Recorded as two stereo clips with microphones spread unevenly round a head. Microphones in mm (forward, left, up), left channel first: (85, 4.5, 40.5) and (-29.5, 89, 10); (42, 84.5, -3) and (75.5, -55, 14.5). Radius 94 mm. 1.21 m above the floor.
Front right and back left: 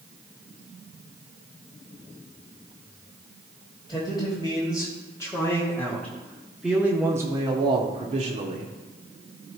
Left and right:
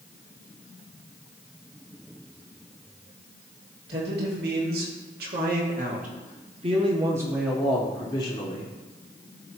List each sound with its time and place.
3.9 s a man speaking: 105° right, 2 m; by 8.7 s 145° left, 0.9 m